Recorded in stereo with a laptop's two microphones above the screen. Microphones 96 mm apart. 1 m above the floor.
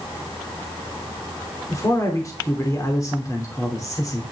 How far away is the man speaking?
About 2.5 m.